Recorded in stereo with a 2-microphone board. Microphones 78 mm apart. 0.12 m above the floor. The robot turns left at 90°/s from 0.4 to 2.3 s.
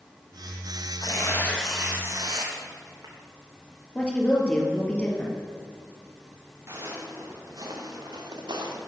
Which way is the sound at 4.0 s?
15° left (ahead or behind).